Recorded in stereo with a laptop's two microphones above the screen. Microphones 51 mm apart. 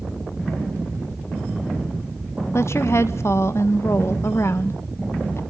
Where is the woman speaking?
60° left (ahead or behind), 1.1 m.